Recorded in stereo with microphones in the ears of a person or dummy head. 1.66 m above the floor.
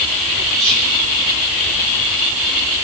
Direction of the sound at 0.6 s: 75° right (ahead or behind).